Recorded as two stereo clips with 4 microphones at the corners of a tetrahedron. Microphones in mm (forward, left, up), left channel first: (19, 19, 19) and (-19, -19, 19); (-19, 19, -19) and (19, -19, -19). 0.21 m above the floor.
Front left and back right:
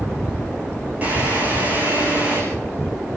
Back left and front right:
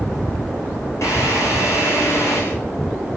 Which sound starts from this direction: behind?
A drill, at 1.0 s.